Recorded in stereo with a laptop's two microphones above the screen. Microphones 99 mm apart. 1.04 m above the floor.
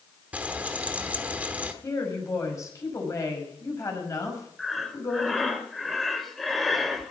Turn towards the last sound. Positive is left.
turn(degrees=0)  # may be behind; listen again after turning